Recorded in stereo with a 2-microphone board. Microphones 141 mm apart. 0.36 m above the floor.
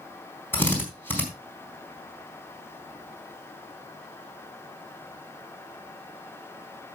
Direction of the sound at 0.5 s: 15° left (ahead or behind).